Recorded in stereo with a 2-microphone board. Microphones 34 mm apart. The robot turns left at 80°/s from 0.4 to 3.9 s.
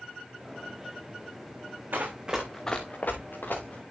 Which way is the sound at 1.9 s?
65° right (ahead or behind).